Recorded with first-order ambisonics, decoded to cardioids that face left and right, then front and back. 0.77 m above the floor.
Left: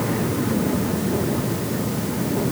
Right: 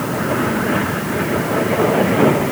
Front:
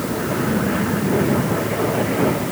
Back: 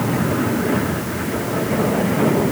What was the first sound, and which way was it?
Only background noise.